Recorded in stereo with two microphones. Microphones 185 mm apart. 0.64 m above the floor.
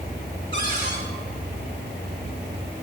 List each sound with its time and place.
0.5 s a cupboard door: 75° right (ahead or behind), 3.5 m